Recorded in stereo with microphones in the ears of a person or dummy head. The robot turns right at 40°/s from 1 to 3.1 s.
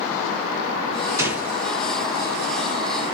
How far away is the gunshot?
About 4 m.